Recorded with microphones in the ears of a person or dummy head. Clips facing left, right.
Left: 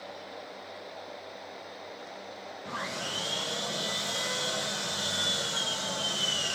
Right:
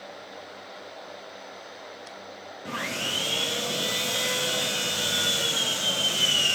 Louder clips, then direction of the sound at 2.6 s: Right 5 dB; 35° right (ahead or behind).